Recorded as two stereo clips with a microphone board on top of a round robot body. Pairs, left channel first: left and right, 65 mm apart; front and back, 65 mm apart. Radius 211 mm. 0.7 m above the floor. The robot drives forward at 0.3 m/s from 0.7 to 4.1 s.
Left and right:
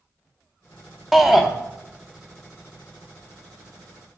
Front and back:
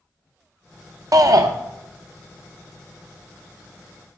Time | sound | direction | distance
1.1 | a shout | 175° right | 0.6 m